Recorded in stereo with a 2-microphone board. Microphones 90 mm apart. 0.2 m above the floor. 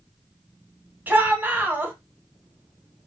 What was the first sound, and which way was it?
A shout, 20° right (ahead or behind).